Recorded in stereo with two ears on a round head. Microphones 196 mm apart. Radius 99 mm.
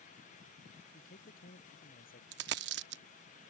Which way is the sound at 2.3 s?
50° right (ahead or behind).